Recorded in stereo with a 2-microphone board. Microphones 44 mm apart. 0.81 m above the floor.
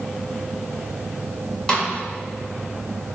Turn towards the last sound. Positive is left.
turn(degrees=20)  # may be behind; listen again after turning